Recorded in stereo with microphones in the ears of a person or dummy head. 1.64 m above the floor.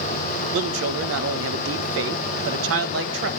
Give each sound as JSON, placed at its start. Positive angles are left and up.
{"t": 0.5, "sound": "a man speaking", "side_deg": -65, "distance_m": 1.4}